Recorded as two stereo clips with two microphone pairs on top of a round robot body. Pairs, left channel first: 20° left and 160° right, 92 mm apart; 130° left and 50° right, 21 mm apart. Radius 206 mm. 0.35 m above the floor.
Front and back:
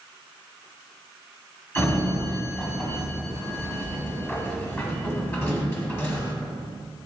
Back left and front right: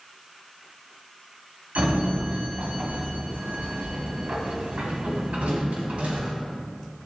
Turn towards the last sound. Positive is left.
turn(degrees=-55)